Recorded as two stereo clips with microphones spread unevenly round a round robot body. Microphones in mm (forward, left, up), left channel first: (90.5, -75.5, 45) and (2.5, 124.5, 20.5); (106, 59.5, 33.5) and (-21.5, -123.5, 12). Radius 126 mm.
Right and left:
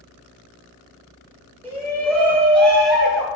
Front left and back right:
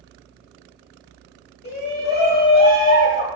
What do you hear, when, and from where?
1.6 s a shout: 15° left, 2.0 m; by 3.3 s 45° left, 1.2 m